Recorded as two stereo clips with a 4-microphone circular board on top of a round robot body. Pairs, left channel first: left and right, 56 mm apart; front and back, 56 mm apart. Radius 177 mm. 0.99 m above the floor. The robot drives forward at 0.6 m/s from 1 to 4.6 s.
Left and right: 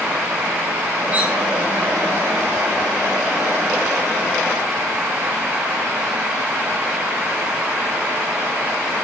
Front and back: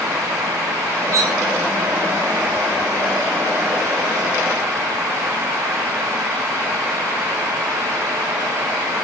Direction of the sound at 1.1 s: 160° right.